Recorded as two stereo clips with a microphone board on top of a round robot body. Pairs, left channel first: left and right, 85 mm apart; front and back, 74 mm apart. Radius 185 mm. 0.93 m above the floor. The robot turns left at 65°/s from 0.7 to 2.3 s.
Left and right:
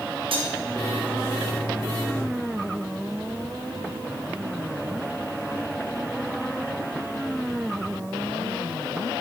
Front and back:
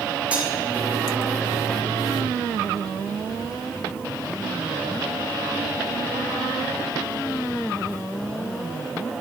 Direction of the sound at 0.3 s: 105° right.